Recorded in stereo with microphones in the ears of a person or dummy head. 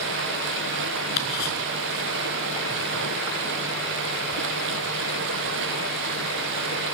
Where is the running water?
60° right (ahead or behind), 1.1 m.